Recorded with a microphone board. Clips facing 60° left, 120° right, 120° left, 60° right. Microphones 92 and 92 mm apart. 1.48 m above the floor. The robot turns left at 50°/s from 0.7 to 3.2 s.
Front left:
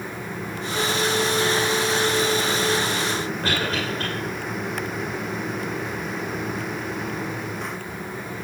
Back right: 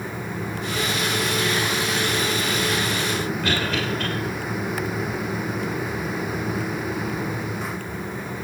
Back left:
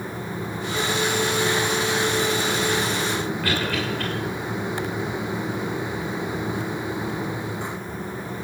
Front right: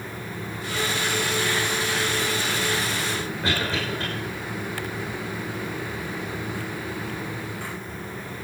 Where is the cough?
5° left, 6 m.